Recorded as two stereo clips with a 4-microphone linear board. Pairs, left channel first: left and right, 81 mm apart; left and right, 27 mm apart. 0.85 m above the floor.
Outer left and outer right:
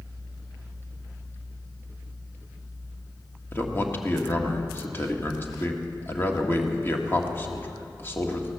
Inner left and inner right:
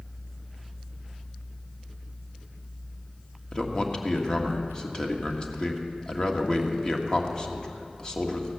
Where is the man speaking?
30° left (ahead or behind), 1.6 m.